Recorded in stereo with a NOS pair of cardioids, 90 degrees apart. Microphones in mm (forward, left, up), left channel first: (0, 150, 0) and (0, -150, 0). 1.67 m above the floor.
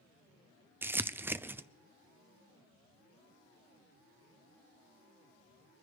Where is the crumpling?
5° right, 0.5 m.